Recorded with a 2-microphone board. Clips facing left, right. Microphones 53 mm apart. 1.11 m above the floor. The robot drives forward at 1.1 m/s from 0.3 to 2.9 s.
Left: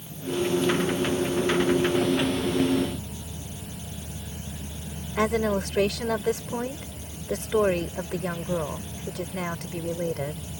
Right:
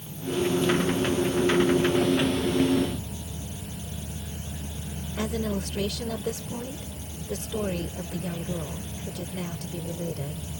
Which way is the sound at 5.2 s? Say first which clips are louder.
Left 6 dB; 75° left (ahead or behind).